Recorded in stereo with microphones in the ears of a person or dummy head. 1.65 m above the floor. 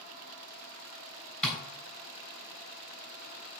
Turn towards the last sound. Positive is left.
turn(degrees=5)  # may be behind; listen again after turning